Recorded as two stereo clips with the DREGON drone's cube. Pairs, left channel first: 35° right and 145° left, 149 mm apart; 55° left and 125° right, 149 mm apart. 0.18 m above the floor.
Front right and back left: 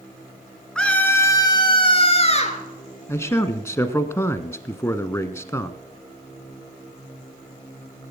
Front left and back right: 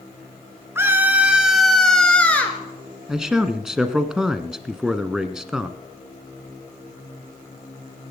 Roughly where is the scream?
Right.